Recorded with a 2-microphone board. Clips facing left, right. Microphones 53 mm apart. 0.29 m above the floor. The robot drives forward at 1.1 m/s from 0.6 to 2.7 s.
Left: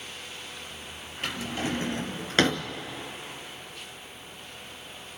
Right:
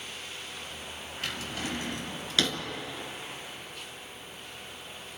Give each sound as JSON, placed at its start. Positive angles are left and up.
{"t": 1.2, "sound": "a drawer", "side_deg": 25, "distance_m": 3.0}